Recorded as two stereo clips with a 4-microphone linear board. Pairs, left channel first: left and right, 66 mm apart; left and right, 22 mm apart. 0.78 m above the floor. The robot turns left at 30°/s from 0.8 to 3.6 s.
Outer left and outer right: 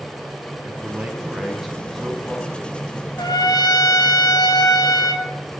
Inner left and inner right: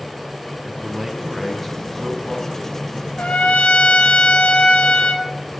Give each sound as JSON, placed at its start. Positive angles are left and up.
{"t": 0.6, "sound": "a man speaking", "azimuth_deg": -150, "distance_m": 5.0}
{"t": 3.2, "sound": "a trumpet", "side_deg": 85, "distance_m": 2.0}